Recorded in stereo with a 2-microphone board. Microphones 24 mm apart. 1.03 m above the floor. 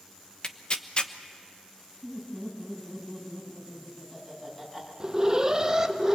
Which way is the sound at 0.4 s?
40° left (ahead or behind).